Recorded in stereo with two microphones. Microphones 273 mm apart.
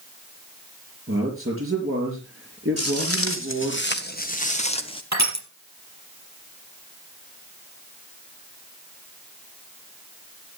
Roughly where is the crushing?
Right.